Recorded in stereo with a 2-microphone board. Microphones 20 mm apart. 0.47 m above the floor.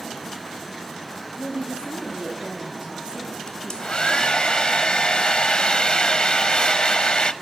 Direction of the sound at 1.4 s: 70° right (ahead or behind).